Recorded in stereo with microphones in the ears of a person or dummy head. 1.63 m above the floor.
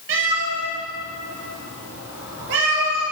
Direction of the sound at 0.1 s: 60° right (ahead or behind).